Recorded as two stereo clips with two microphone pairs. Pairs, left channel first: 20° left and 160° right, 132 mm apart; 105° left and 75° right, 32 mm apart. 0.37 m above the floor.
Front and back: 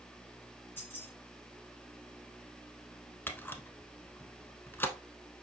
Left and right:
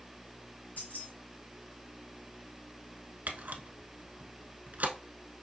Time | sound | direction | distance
0.8 | keys jangling | 95° left | 3.5 m
3.3 | a camera shutter | 50° right | 0.7 m